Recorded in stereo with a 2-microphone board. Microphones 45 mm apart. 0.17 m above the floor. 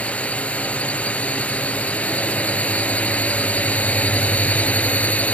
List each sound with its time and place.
0.0 s a drone: 30° left (ahead or behind); by 5.3 s 35° left (ahead or behind)